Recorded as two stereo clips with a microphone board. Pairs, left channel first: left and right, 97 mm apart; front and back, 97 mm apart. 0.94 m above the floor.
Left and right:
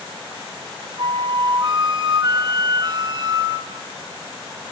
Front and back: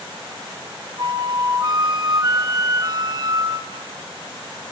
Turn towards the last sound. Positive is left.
turn(degrees=-130)